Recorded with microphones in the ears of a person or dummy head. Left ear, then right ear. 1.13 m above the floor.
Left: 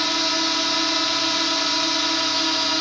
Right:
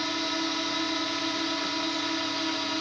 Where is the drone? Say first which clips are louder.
Left 8 dB; 35° left (ahead or behind).